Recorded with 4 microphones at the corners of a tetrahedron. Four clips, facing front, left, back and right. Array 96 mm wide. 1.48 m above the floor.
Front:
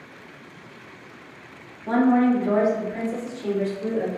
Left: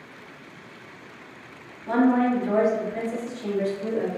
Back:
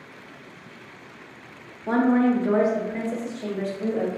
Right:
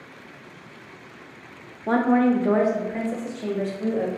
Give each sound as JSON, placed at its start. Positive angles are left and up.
{"t": 1.9, "sound": "a woman speaking", "azimuth_deg": -95, "distance_m": 0.7}